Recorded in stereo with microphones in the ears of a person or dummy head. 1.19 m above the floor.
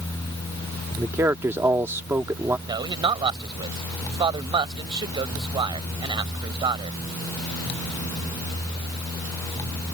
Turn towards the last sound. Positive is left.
turn(degrees=-20)  # may be behind; listen again after turning